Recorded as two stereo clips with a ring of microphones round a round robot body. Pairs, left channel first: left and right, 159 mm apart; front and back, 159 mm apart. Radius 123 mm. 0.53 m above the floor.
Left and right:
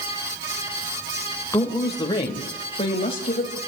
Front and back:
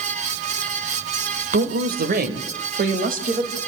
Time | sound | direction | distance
1.5 | a woman speaking | 165° left | 2.5 m